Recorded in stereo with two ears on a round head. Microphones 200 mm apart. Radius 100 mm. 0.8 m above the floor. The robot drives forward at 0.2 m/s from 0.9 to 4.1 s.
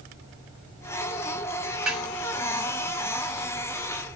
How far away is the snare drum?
About 1.1 m.